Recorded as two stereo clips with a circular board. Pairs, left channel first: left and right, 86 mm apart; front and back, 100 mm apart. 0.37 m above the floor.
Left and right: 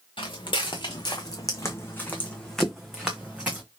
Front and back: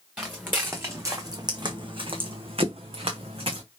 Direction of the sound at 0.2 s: 105° left.